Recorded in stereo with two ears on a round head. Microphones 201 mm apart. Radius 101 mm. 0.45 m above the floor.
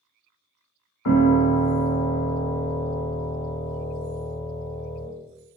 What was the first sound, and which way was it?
A piano, 85° left.